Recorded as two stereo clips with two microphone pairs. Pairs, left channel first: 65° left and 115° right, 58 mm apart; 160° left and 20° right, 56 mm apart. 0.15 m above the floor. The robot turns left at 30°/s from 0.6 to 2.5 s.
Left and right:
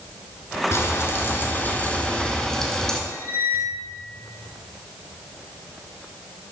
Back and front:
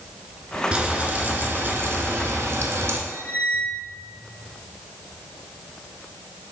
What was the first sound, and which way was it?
Frying, 40° left.